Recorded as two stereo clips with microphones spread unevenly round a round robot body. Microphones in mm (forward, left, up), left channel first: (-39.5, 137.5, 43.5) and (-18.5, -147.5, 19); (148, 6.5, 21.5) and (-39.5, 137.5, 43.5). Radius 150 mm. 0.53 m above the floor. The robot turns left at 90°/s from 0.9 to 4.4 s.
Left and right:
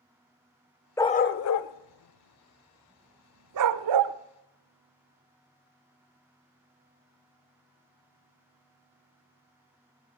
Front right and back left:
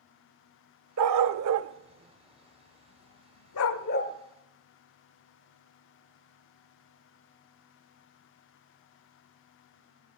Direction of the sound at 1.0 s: 175° left.